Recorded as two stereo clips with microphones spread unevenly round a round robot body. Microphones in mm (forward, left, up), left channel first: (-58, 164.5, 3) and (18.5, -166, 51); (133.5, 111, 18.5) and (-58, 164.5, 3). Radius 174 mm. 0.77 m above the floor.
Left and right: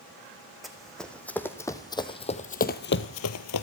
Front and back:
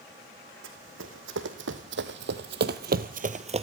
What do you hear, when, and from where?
0.6 s running footsteps: 165° right, 2 m; by 3.6 s 115° left, 1.0 m